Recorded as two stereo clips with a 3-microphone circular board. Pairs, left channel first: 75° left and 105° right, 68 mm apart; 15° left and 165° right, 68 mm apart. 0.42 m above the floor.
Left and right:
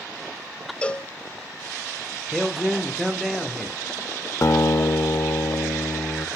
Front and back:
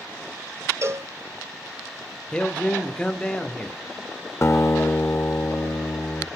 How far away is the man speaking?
About 0.9 m.